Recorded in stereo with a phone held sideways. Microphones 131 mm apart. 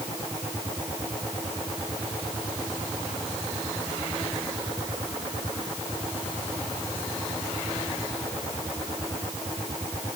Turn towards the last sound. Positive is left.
No sound to turn to.